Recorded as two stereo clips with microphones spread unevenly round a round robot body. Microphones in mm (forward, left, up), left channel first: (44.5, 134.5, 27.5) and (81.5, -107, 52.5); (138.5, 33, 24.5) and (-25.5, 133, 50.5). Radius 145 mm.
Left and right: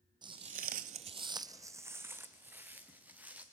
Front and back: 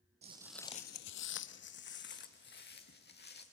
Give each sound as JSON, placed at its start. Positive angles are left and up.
{"t": 0.2, "sound": "footsteps", "azimuth_deg": -150, "distance_m": 0.8}